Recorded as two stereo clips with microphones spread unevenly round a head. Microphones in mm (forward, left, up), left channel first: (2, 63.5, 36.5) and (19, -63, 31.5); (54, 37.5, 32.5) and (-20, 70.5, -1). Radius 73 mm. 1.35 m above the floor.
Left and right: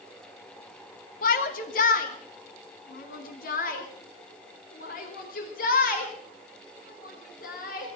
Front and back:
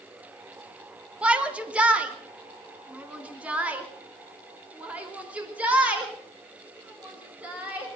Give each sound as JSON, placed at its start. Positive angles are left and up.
{"t": 1.2, "sound": "a shout", "azimuth_deg": 80, "distance_m": 2.0}